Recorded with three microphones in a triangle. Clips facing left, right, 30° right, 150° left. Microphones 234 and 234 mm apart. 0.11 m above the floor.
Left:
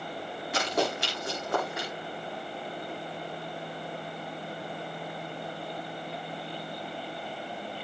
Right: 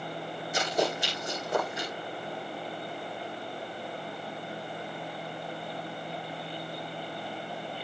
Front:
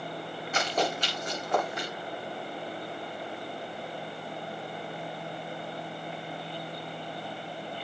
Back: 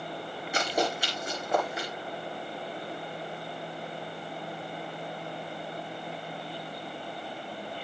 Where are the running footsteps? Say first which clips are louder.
Even, back 1 dB; 70° left, 9.5 m; by 1.9 s 65° left, 10 m.